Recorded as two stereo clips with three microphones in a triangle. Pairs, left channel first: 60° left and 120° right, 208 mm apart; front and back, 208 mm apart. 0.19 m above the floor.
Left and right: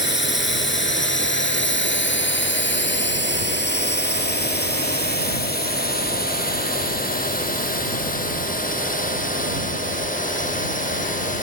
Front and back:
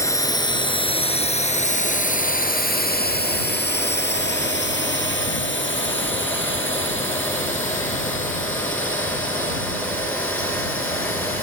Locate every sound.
0.0 s a drone: 75° left; by 11.4 s 10° left